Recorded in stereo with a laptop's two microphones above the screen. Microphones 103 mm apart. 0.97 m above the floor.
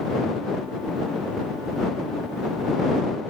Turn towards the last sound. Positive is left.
No sound to turn to.